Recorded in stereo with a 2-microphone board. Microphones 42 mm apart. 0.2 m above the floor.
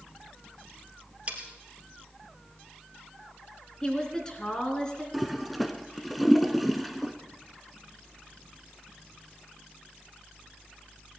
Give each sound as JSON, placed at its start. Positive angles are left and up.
{"t": 1.3, "sound": "cutlery clinking", "side_deg": -35, "distance_m": 2.5}
{"t": 3.8, "sound": "a woman speaking", "side_deg": 20, "distance_m": 3.0}
{"t": 5.1, "sound": "a toilet flushing", "side_deg": 0, "distance_m": 1.0}